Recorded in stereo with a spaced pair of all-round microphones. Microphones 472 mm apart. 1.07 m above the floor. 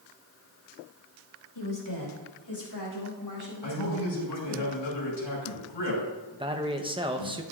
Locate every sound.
1.6 s a woman speaking: 65° left (ahead or behind), 3 m; by 4.6 s 40° left (ahead or behind), 6 m
3.6 s a man speaking: 65° left (ahead or behind), 6 m
6.3 s a man speaking: 10° right (ahead or behind), 1.0 m